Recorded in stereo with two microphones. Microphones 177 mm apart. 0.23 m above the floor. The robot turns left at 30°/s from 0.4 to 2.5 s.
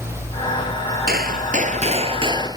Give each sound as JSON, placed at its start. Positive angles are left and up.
{"t": 1.1, "sound": "a gunshot", "azimuth_deg": -115}